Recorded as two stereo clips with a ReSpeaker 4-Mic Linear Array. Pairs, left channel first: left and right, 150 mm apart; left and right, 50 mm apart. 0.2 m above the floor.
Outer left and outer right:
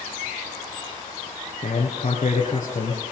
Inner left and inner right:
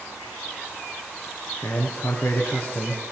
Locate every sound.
1.6 s a man speaking: 45° left (ahead or behind), 2.5 m